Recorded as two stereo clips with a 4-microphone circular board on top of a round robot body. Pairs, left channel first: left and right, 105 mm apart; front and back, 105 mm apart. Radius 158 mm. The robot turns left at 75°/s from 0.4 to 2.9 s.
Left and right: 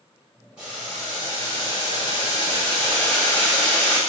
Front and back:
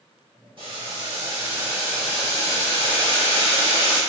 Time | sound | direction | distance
0.6 | boiling | 170° right | 1.9 m